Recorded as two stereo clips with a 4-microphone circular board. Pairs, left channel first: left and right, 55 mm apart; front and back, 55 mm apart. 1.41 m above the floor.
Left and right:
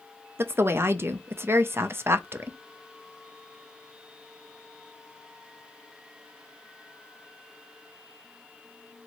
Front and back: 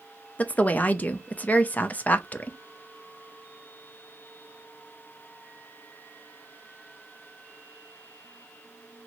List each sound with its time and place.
0.4 s a woman speaking: 55° right, 0.5 m